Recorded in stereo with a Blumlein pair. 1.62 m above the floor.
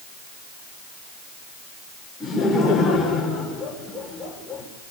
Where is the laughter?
5° left, 7 m.